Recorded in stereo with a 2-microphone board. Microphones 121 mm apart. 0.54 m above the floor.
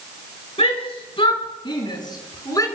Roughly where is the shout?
Left.